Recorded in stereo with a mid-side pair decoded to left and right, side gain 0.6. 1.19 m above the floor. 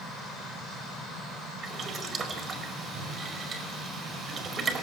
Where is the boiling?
35° right, 4.5 m.